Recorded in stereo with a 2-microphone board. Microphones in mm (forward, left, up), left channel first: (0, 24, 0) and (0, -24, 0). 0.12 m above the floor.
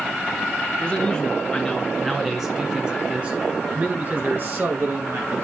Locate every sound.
0.8 s a man speaking: 25° left (ahead or behind), 2.0 m; by 5.5 s 55° right (ahead or behind), 3 m